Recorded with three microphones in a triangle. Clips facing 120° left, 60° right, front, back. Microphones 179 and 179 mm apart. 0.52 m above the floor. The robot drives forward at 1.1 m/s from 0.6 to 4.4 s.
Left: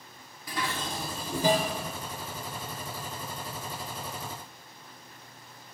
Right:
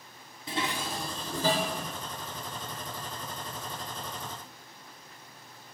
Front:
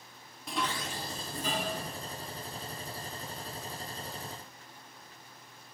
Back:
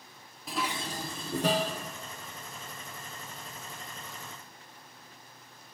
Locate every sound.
0.5 s dishes clattering: 90° right, 0.5 m; by 1.8 s 170° right, 1.5 m